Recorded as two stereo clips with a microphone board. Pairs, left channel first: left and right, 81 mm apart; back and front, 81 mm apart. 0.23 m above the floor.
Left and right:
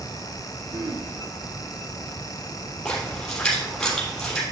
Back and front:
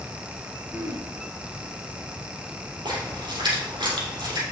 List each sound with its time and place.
0.7 s throat clearing: 60° right, 2.5 m
2.9 s a splash: 5° left, 3 m